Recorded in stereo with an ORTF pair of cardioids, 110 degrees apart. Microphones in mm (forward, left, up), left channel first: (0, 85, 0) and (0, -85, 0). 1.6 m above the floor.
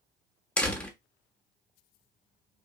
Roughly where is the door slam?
Ahead.